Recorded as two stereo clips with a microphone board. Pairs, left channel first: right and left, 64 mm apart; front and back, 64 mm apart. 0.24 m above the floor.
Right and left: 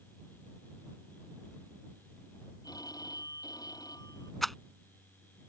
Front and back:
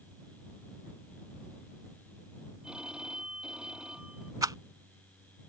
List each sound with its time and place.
2.6 s a phone ringing: 105° right
4.4 s a rattle: straight behind